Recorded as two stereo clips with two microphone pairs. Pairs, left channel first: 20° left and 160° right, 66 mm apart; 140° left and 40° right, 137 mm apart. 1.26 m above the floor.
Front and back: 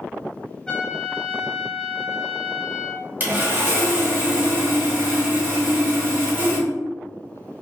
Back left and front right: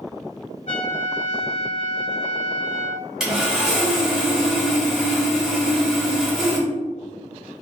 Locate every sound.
0.7 s a trumpet: 110° left, 1.9 m
3.2 s sawing: 125° right, 1.3 m